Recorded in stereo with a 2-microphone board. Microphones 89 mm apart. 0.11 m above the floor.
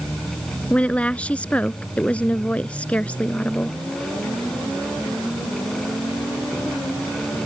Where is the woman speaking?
15° left (ahead or behind).